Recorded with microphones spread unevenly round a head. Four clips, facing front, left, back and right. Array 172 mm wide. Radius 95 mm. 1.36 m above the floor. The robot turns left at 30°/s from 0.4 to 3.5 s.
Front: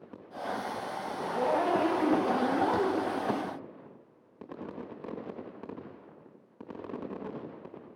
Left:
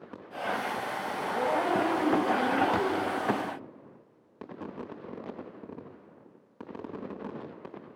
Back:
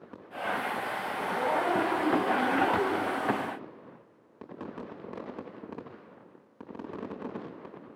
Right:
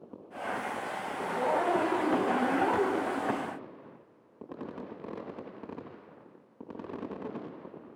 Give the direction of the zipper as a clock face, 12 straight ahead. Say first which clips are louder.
Even, front 1 dB; 11 o'clock.